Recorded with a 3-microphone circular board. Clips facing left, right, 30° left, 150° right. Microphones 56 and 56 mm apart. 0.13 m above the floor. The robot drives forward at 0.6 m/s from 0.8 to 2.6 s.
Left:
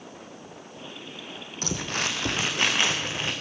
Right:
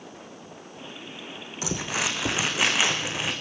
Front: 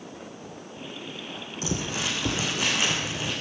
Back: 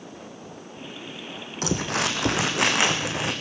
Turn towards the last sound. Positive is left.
turn(degrees=-175)